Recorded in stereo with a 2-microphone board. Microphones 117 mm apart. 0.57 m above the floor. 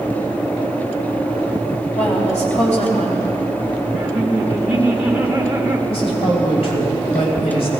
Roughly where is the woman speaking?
Left.